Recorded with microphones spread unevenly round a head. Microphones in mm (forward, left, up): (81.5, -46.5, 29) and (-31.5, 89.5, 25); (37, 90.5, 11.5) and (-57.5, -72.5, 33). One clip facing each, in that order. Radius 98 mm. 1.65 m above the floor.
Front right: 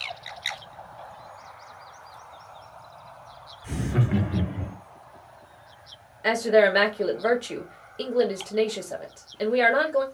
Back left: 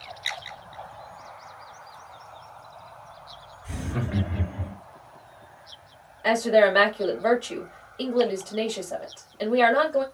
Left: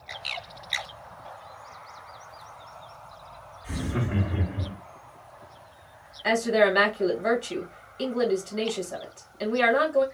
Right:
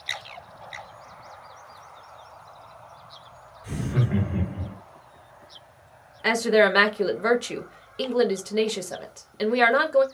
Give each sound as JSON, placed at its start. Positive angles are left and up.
{"t": 3.6, "sound": "laughter", "azimuth_deg": -60, "distance_m": 1.6}
{"t": 6.2, "sound": "a woman speaking", "azimuth_deg": -125, "distance_m": 1.0}